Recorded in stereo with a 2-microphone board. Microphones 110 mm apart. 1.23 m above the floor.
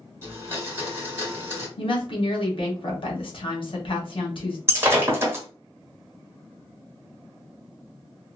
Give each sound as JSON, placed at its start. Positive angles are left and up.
{"t": 0.2, "sound": "a blender", "side_deg": -25, "distance_m": 1.3}
{"t": 1.8, "sound": "a woman speaking", "side_deg": 55, "distance_m": 1.2}
{"t": 4.7, "sound": "breaking glass", "side_deg": -20, "distance_m": 1.2}